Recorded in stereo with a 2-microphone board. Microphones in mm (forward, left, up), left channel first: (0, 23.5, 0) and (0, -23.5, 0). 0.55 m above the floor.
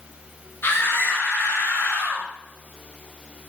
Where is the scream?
50° left (ahead or behind), 8.5 m; by 2.3 s 55° left (ahead or behind), 7.5 m.